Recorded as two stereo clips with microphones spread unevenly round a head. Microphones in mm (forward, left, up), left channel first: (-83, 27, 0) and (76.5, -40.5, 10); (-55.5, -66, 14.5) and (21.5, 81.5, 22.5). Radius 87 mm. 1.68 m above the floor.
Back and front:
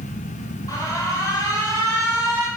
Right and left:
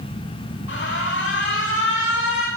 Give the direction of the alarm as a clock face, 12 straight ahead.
4 o'clock.